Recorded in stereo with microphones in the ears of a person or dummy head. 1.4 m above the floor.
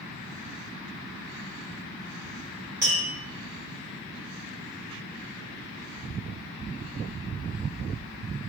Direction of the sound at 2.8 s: 15° right (ahead or behind).